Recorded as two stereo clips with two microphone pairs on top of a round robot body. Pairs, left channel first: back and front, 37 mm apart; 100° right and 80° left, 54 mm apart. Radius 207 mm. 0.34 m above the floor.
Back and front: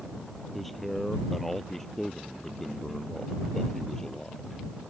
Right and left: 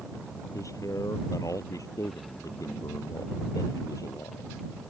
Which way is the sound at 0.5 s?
95° right.